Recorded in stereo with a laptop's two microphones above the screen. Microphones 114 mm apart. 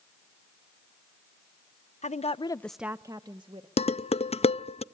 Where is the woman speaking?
70° left (ahead or behind), 0.8 m; by 3.7 s 40° right (ahead or behind), 1.5 m.